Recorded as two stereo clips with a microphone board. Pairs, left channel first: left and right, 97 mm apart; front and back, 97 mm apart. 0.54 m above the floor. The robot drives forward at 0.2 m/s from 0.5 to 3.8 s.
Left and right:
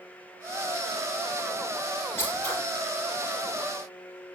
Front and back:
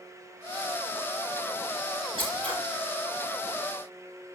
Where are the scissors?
155° left, 4.5 m.